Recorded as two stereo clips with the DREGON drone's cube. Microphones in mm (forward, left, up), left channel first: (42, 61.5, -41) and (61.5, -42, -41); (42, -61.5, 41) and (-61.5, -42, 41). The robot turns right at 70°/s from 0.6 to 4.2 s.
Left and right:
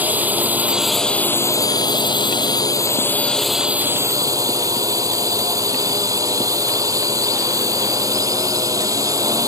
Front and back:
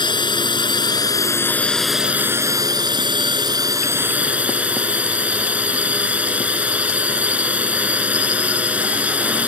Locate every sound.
0.0 s a drone: 10° right; by 9.5 s 120° right